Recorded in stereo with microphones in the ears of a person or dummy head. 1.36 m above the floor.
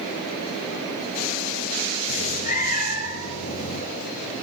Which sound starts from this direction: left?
A cat meowing, at 2.1 s.